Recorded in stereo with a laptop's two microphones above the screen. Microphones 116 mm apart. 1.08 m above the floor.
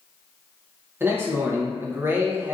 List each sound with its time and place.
1.0 s a man speaking: 20° right (ahead or behind), 0.6 m